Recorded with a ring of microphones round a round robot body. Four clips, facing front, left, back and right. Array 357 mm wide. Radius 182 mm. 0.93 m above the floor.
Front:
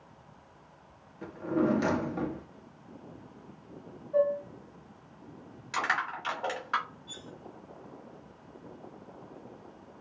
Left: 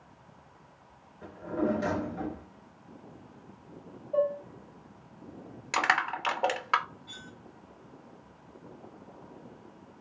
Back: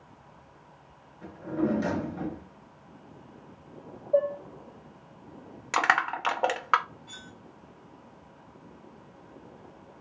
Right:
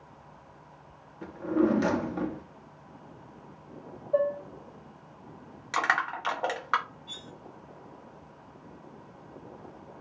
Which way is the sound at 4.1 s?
150° right.